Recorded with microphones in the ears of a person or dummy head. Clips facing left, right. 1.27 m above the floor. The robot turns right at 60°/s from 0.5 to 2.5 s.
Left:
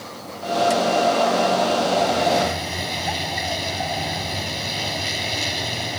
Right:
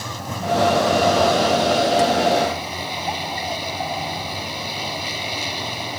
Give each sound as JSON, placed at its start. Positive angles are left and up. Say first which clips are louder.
{"t": 0.0, "sound": "a vehicle", "louder": "right 4 dB", "azimuth_deg": -110}